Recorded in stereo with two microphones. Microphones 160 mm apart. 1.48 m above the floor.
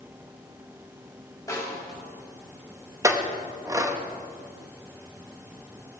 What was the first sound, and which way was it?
A snare drum, 20° left (ahead or behind).